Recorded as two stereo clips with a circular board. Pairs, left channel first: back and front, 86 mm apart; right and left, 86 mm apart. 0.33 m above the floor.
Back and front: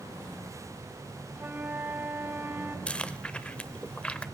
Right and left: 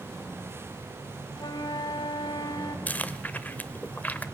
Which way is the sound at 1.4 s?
65° right.